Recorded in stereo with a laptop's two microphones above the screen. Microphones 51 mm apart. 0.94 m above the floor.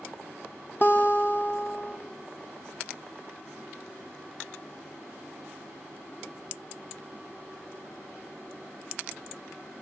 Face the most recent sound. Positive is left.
turn(degrees=35)  # may be behind; listen again after turning